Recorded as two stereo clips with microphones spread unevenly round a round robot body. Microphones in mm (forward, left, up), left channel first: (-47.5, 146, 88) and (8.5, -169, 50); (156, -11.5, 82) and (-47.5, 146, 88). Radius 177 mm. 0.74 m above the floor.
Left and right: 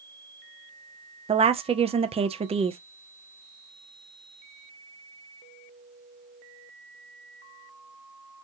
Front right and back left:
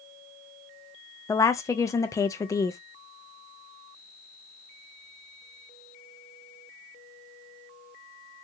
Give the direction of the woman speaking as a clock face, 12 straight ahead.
3 o'clock.